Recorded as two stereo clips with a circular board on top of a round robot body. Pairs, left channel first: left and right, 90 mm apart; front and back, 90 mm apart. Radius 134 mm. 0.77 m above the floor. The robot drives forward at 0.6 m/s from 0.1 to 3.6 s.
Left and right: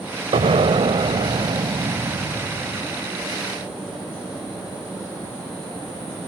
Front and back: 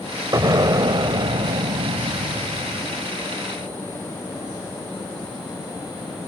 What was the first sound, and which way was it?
An explosion, 120° right.